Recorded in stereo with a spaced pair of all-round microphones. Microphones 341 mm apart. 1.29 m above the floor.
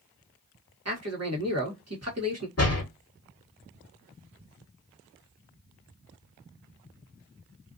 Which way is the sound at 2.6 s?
45° left (ahead or behind).